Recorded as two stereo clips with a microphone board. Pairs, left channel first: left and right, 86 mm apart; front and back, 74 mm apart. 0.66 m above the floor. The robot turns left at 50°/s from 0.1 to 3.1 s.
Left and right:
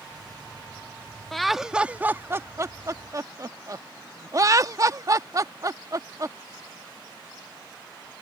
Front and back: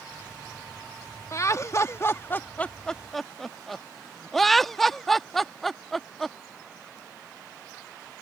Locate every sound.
1.3 s laughter: 5° left; by 6.4 s 85° right